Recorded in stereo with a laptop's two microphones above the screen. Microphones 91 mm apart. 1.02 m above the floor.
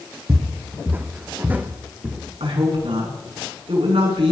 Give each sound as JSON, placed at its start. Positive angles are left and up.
{"t": 0.3, "sound": "footsteps", "side_deg": -30, "distance_m": 2.0}
{"t": 2.4, "sound": "a woman speaking", "side_deg": -85, "distance_m": 9.5}